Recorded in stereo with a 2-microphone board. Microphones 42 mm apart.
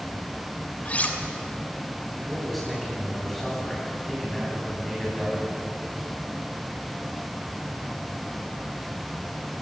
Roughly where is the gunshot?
No gunshot in this recording.